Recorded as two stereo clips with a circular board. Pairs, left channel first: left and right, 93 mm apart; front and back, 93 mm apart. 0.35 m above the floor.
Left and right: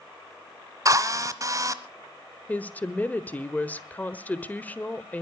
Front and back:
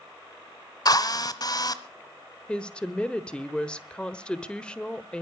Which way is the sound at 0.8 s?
40° right.